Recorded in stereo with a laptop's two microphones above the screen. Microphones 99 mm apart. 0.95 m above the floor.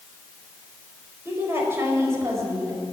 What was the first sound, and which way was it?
A woman speaking, 25° right (ahead or behind).